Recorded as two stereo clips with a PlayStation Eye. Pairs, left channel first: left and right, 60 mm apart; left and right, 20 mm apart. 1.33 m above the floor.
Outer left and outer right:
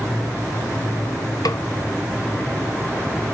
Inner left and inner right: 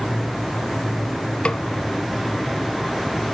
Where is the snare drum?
80° left, 0.8 m.